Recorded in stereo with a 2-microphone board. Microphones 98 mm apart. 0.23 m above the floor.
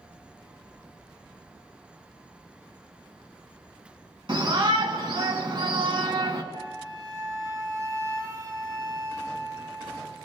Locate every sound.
4.3 s a shout: 55° right (ahead or behind), 2 m
6.5 s a flute: 35° right (ahead or behind), 1.6 m